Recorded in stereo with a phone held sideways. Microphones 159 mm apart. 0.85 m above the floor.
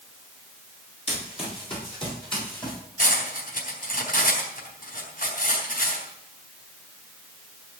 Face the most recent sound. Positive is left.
turn(degrees=65)  # may be behind; listen again after turning